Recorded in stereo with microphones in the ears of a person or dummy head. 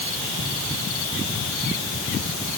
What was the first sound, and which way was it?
Only background noise.